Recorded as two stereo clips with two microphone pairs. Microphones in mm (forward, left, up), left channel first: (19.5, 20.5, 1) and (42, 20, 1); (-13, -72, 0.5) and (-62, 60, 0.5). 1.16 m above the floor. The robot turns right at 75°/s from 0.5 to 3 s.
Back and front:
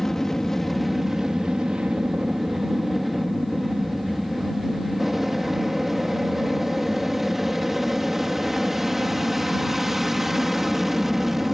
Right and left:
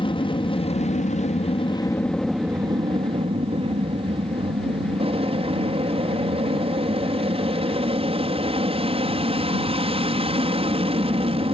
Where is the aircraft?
115° right; by 11.5 s 75° left.